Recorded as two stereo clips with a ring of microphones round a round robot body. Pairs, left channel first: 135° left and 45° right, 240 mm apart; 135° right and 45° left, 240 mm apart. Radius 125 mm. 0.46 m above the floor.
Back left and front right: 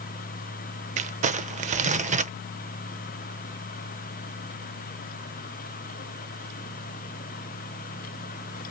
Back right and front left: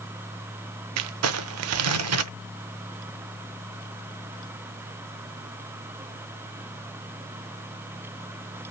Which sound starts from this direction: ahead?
Crumpling, at 1.0 s.